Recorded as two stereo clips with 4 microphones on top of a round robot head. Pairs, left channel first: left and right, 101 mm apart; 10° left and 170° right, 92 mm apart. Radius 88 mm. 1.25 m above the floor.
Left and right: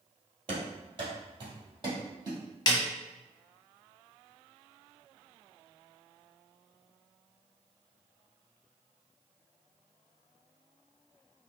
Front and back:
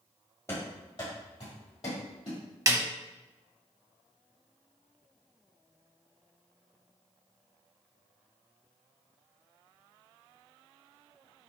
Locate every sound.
0.5 s running footsteps: 60° right, 1.8 m; by 2.4 s 40° right, 2.5 m
2.7 s a snare drum: 135° left, 0.8 m